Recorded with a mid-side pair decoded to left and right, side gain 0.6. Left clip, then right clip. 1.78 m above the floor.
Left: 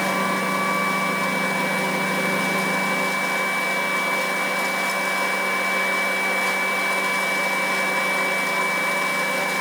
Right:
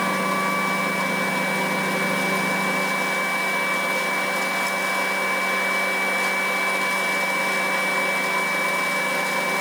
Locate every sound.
Only background noise.